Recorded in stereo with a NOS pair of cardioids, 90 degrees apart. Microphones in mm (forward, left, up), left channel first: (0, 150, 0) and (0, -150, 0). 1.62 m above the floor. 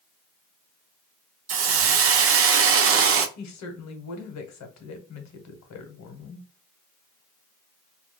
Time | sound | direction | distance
1.5 | a hiss | 50° right | 0.5 m
3.4 | a woman speaking | 65° left | 1.0 m